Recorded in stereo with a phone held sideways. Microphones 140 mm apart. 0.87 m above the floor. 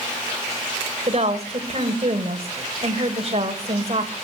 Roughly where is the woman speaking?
Right.